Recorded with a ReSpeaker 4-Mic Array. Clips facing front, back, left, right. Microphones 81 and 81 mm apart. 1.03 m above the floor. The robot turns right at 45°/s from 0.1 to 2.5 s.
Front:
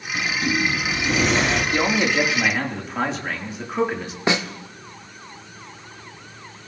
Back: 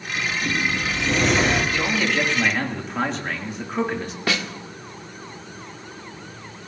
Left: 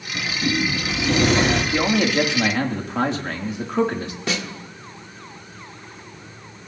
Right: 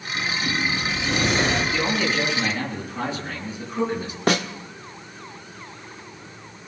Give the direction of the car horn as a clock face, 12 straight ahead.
No car horn in this recording.